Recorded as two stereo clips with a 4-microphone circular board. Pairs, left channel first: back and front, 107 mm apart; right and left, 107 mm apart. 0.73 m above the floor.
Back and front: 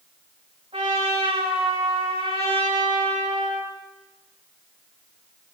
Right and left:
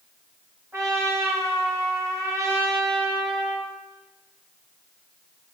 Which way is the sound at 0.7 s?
25° left.